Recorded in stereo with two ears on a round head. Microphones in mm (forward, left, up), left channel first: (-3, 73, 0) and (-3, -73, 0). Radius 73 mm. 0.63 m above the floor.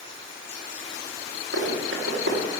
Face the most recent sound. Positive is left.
turn(degrees=-85)